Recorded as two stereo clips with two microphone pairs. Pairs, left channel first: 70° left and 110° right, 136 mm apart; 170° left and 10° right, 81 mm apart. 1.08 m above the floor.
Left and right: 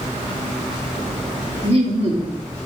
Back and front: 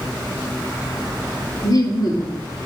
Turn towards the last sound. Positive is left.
turn(degrees=-150)